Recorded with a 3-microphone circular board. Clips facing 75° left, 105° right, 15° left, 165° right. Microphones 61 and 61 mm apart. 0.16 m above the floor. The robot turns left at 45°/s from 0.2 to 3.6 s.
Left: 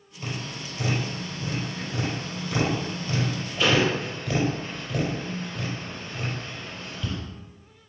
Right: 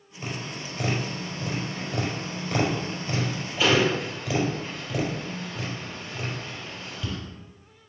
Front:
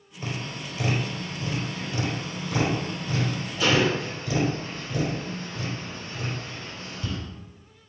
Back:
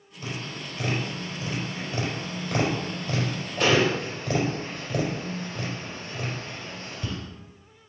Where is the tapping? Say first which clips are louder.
Even, front 1 dB; 35° right, 4 m; by 7.2 s 170° left, 4 m.